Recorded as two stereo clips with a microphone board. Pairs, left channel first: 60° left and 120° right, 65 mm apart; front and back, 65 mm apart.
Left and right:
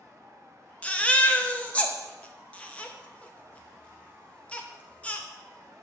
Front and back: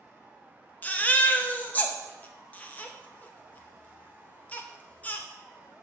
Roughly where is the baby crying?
Ahead.